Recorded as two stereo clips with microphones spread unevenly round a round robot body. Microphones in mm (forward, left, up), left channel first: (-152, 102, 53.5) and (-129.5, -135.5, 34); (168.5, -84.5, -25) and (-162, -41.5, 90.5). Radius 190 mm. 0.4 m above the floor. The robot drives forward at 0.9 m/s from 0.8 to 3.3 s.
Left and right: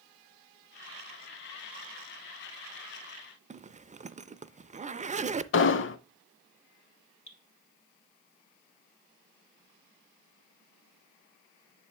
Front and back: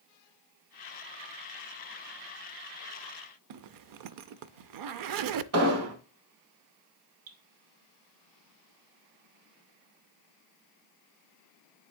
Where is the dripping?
155° left, 2 m.